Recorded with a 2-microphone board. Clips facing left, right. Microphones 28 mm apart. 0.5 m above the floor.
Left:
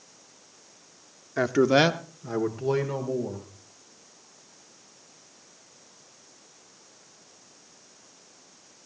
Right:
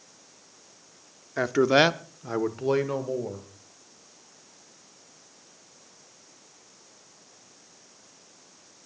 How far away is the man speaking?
About 0.8 m.